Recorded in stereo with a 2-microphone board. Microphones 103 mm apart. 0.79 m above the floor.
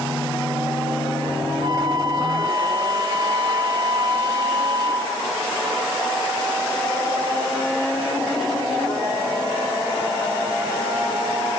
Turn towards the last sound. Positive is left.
turn(degrees=-50)  # may be behind; listen again after turning